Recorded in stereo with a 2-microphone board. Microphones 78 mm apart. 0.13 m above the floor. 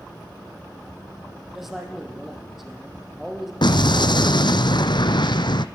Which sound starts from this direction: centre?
A man speaking, at 1.6 s.